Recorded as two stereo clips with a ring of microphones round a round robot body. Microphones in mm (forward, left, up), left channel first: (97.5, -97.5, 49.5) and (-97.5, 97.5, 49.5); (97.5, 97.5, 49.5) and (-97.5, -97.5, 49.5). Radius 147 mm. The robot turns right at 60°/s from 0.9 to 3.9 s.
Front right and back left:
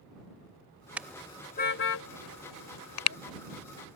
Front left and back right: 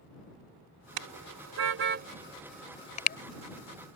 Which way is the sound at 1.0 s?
140° right.